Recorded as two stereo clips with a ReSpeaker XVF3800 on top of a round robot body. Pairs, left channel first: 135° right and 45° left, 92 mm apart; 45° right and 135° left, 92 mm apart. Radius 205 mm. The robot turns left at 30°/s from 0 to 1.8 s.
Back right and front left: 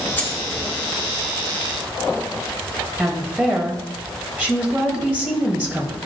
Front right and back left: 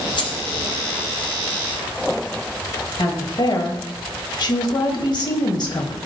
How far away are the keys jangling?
About 1.2 m.